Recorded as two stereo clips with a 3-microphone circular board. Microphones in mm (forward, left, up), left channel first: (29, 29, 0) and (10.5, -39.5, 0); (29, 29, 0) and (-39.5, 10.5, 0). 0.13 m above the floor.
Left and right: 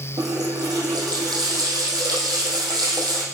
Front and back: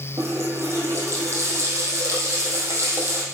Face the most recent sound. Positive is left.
turn(degrees=-120)